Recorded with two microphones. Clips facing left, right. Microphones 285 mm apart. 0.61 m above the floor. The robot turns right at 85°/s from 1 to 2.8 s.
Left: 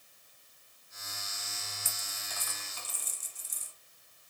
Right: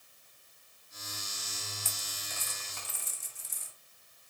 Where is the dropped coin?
15° left (ahead or behind), 1.2 m; by 3.7 s 65° right (ahead or behind), 1.2 m.